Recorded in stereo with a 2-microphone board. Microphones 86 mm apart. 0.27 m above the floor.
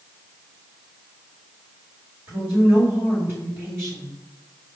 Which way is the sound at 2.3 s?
25° right (ahead or behind).